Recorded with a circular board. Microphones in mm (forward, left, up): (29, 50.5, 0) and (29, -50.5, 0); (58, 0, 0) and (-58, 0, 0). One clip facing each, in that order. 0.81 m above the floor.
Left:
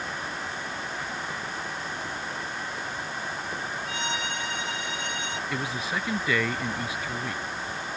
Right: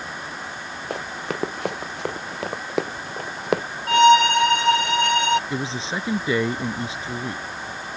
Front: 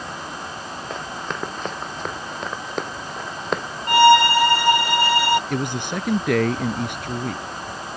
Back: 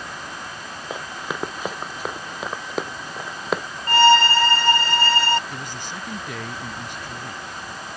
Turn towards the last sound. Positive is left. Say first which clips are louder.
# right 3 dB, front 9 dB
turn(degrees=-25)